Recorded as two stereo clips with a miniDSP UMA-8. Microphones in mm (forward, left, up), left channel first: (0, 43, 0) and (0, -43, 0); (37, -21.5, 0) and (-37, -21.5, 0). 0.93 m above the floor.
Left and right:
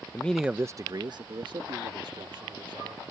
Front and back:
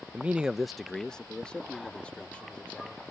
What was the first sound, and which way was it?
A man speaking, 130° left.